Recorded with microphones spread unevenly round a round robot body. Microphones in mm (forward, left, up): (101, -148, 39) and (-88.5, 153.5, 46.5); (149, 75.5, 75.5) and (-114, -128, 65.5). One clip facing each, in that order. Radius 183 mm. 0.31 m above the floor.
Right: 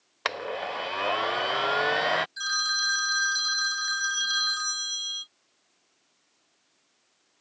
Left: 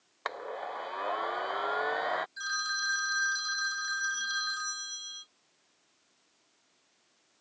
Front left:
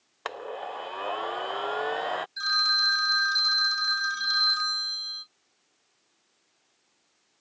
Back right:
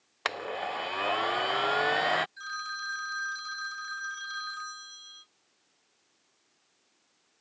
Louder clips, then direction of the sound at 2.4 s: Right 4 dB, front left 7 dB; 10° left.